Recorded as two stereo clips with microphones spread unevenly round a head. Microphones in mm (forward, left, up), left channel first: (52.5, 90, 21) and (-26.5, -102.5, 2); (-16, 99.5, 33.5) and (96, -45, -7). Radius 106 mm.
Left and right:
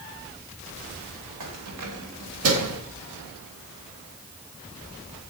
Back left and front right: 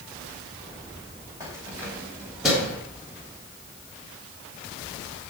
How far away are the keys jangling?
About 2.5 m.